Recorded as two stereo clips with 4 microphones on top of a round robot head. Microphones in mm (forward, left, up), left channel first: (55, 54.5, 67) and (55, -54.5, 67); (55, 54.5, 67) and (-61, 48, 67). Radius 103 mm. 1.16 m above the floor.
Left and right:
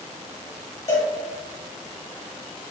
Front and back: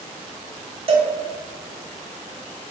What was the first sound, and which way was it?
A cowbell, 150° left.